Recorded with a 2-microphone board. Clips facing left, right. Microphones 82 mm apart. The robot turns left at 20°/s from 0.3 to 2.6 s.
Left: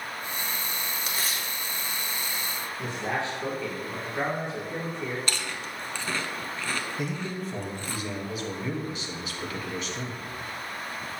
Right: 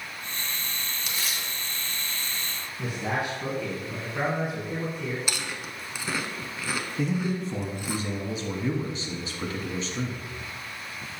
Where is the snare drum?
I don't hear a snare drum.